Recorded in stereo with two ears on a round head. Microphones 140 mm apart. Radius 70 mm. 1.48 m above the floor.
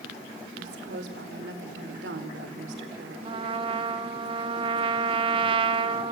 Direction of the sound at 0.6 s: 80° right.